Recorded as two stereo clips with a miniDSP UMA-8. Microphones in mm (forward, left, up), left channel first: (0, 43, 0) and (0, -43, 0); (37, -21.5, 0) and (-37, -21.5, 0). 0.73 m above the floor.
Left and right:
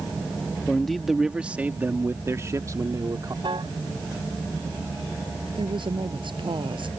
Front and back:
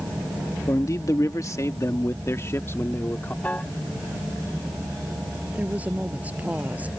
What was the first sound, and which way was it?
A man speaking, 10° left.